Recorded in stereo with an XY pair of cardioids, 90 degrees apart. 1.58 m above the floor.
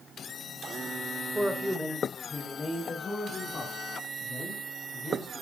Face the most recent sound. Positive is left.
turn(degrees=55)